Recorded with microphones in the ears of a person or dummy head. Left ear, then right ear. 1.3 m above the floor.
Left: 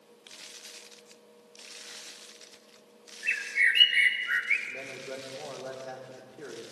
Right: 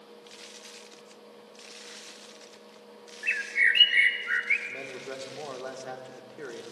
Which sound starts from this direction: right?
A man speaking, at 4.7 s.